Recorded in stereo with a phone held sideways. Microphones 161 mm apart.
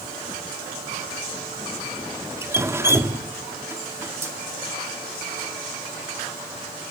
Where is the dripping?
15° right (ahead or behind), 1.5 m.